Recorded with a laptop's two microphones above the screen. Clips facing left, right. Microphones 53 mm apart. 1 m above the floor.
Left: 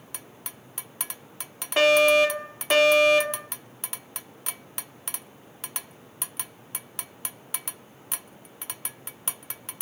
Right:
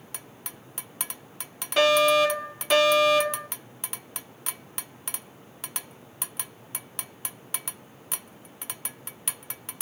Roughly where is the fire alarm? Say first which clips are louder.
Left 1 dB; left.